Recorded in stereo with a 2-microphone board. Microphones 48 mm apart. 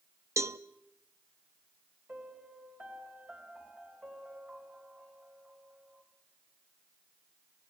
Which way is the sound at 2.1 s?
35° right (ahead or behind).